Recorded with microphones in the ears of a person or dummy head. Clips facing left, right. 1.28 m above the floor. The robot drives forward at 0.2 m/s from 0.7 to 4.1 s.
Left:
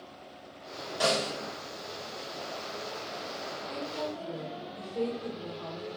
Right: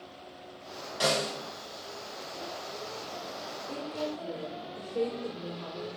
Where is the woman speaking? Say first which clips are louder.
Right 2 dB; 35° right (ahead or behind), 0.7 m; by 5.9 s 30° right (ahead or behind), 0.8 m.